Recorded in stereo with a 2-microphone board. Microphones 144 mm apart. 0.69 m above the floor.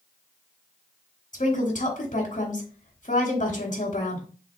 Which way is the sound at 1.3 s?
65° left (ahead or behind).